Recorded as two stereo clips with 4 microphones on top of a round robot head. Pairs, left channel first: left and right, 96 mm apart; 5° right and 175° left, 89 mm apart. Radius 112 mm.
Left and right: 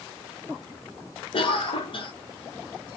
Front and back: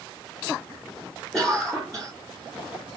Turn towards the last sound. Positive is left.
turn(degrees=80)